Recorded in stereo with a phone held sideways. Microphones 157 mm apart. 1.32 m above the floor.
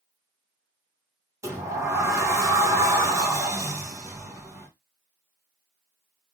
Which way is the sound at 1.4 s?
20° right (ahead or behind).